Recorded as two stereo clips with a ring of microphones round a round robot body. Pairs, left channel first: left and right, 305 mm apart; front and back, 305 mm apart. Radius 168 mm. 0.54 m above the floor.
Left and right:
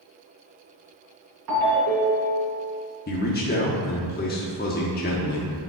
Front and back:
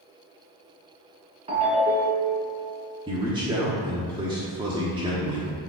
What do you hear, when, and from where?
1.5 s a ringtone: 110° right, 3 m
3.1 s a man speaking: 120° left, 1.2 m